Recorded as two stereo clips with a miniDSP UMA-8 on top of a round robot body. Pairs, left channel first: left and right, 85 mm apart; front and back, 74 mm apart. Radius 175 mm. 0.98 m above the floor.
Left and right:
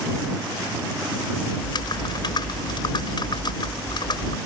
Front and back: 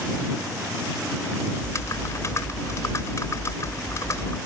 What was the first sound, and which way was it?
Typing on a keyboard, 50° left.